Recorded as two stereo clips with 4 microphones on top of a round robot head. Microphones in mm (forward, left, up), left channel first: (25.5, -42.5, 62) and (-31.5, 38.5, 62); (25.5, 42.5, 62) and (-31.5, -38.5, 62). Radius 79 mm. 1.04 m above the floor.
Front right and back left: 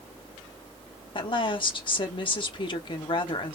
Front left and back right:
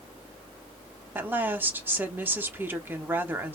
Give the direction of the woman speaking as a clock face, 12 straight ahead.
2 o'clock.